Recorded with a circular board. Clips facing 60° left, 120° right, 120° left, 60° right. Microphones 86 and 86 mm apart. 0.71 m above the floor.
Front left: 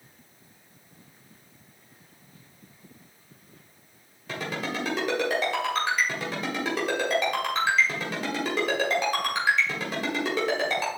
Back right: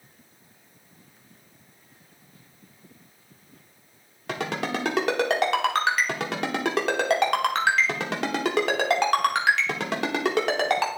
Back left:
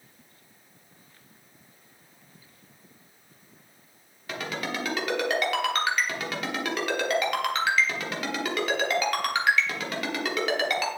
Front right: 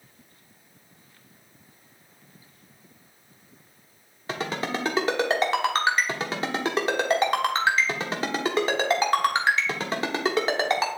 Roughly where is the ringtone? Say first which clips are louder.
Back right 3 dB, front right 3 dB; behind right.